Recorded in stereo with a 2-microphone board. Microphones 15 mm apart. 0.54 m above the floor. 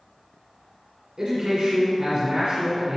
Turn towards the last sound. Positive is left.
turn(degrees=-50)  # may be behind; listen again after turning